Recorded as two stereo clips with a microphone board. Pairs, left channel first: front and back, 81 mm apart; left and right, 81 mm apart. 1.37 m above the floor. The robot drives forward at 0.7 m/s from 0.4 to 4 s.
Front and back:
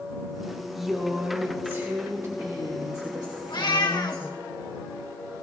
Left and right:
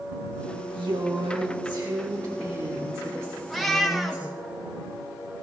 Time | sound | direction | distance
0.8 | a woman speaking | 90° right | 1.3 m
3.5 | a cat meowing | straight ahead | 1.3 m